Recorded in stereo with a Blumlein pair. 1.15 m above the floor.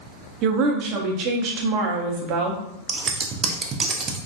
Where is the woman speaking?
40° right, 0.7 m.